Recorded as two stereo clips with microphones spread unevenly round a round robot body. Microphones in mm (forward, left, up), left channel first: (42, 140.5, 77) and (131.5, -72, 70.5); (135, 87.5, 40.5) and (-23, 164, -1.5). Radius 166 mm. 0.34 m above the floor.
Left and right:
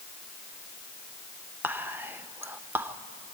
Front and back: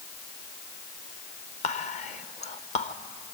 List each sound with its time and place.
1.6 s whispering: straight ahead, 1.0 m